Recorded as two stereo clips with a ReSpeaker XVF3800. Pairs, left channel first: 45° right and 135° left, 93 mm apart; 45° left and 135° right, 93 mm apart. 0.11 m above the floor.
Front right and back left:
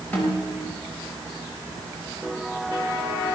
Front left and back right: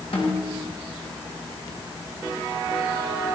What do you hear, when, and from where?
0.1 s a snare drum: 25° left, 10 m